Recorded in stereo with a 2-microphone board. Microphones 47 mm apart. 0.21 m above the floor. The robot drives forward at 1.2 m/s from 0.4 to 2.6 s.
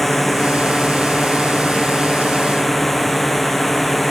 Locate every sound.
0.0 s a drone: centre (ahead or behind)